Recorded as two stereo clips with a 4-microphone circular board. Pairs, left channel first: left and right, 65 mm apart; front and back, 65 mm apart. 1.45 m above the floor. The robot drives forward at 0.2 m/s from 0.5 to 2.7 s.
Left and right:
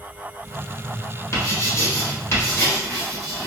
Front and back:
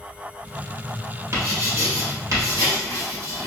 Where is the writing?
130° left, 1.3 m; by 3.5 s 140° left, 1.5 m.